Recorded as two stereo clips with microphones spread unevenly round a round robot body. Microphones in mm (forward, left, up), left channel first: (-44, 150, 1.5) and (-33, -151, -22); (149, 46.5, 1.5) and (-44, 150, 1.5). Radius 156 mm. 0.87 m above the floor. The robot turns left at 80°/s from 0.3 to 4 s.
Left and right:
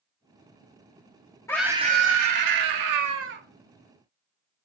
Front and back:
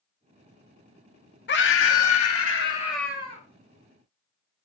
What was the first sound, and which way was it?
A scream, 10° left.